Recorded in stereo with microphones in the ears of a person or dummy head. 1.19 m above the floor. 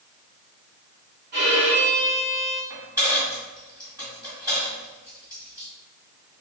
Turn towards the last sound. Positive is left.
turn(degrees=-20)  # may be behind; listen again after turning